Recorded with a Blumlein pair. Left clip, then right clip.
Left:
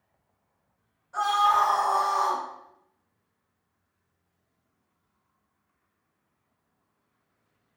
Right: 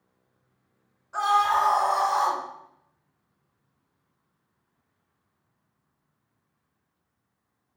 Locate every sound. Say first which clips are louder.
1.1 s a scream: even; 70° right, 1.7 m; by 2.4 s 35° right, 0.7 m